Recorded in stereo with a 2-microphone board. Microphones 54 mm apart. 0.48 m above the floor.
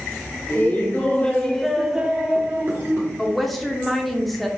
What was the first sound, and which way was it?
Laughter, 45° left (ahead or behind).